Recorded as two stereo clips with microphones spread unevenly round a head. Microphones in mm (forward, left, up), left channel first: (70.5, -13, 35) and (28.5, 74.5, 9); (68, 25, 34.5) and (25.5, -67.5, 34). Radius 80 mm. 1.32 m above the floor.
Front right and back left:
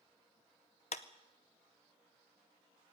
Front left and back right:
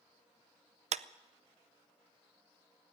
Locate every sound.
0.9 s a clap: 110° right, 0.6 m